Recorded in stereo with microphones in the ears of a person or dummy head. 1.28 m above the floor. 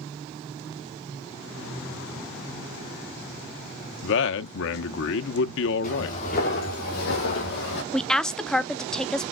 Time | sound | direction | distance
4.0 | a man speaking | 70° left (ahead or behind) | 0.9 m
5.8 | footsteps | 50° left (ahead or behind) | 4 m
7.9 | a woman speaking | 5° left (ahead or behind) | 0.6 m